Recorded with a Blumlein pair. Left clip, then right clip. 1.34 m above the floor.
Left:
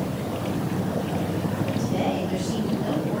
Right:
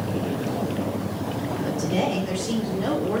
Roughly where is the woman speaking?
Ahead.